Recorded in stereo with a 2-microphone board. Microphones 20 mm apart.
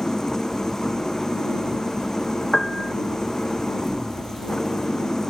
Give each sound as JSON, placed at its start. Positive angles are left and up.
{"t": 0.0, "sound": "an engine running", "side_deg": 25}
{"t": 2.5, "sound": "a piano", "side_deg": 10}